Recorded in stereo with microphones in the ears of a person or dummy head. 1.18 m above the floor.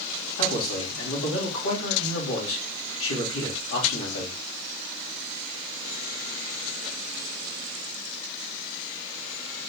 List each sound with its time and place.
0.4 s a man speaking: 80° left, 2.5 m